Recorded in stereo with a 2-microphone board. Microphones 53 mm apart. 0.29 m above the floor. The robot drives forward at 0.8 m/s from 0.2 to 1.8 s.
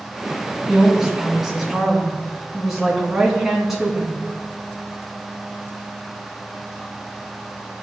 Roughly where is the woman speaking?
Centre.